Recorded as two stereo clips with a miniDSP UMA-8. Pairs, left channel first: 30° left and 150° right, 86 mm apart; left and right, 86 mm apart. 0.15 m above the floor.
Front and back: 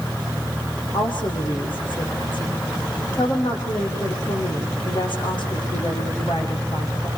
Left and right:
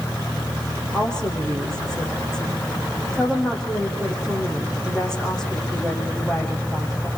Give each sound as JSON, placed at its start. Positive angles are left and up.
{"t": 0.9, "sound": "a woman speaking", "azimuth_deg": 10, "distance_m": 6.5}